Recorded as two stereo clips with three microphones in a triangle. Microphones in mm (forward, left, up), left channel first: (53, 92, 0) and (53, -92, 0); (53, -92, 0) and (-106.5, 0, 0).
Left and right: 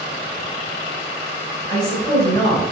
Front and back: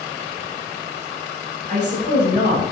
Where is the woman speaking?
135° left, 1.8 m.